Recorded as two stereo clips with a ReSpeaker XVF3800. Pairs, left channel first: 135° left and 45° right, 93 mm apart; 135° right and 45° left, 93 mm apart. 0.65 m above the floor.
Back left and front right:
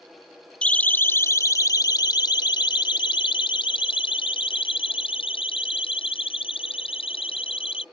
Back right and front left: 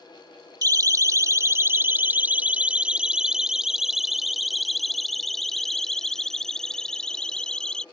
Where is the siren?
60° left; by 7.8 s 140° left.